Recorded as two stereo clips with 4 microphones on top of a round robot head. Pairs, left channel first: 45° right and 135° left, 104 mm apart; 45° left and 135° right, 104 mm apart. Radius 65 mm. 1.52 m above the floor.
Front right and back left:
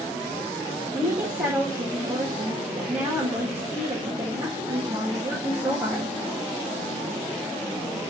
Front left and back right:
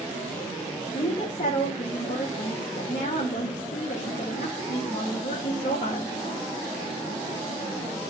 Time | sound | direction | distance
0.9 | a woman speaking | 70° left | 2 m